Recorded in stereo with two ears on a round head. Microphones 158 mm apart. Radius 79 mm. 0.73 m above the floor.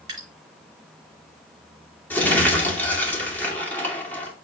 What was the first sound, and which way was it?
Dripping, 25° right (ahead or behind).